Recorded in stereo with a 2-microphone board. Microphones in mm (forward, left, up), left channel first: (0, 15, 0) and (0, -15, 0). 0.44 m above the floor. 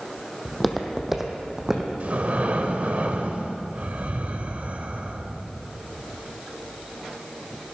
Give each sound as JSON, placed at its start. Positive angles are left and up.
{"t": 0.5, "sound": "footsteps", "side_deg": 5, "distance_m": 1.0}
{"t": 2.0, "sound": "breathing", "side_deg": -55, "distance_m": 0.7}